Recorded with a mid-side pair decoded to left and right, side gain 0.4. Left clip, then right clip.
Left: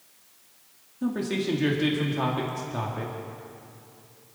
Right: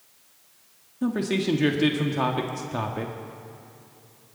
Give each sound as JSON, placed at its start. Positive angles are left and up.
{"t": 1.0, "sound": "a man speaking", "azimuth_deg": -40, "distance_m": 1.8}